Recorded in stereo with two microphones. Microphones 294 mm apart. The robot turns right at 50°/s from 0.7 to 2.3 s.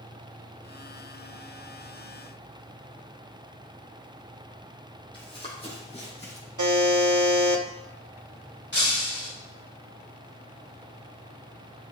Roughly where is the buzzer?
Right.